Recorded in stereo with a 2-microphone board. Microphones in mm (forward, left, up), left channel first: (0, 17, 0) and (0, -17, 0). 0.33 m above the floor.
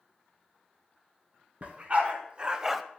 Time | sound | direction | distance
1.6 | a dog barking | 45° right (ahead or behind) | 1.9 m